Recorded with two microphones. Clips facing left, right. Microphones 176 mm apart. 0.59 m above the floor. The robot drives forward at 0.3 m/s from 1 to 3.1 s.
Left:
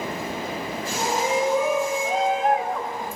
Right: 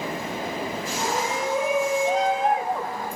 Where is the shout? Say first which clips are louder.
Left 5 dB; 15° right (ahead or behind), 1.6 m; by 3.2 s 20° right (ahead or behind), 1.3 m.